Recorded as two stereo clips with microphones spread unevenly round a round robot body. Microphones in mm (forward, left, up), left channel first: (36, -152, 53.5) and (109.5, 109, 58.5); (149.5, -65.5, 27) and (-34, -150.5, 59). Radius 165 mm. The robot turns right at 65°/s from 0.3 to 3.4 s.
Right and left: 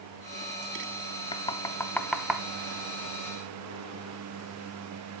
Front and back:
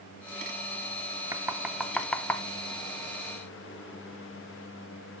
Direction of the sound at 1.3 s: 75° right.